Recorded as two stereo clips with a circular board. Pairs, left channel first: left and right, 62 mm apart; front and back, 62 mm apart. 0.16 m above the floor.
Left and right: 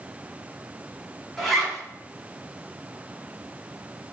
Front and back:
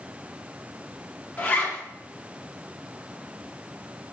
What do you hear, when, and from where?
1.4 s a zipper: 10° left, 0.8 m